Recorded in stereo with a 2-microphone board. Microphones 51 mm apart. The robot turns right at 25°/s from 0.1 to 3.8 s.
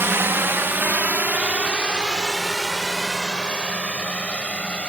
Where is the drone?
50° right (ahead or behind); by 4.9 s 25° left (ahead or behind).